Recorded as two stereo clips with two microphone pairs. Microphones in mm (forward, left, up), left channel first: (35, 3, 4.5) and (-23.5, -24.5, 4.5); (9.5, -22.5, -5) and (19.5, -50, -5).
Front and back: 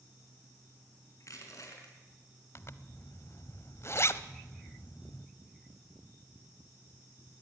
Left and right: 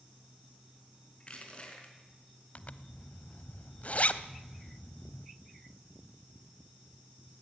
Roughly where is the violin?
No violin in this recording.